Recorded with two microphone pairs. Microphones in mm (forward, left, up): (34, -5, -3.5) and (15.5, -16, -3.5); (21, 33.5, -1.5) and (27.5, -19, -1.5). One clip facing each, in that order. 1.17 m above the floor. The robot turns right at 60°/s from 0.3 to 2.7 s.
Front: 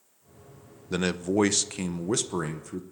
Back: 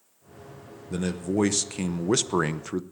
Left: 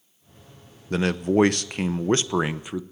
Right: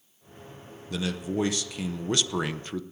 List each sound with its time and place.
0.9 s a man speaking: 65° left, 0.7 m; by 2.8 s 170° left, 0.7 m